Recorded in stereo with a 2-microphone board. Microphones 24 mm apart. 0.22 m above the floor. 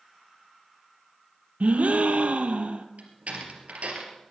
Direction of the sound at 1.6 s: 80° right.